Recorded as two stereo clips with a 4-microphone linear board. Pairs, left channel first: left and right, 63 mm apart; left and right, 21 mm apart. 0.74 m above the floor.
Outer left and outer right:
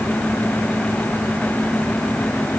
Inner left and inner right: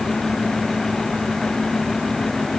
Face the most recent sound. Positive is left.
No sound to turn to.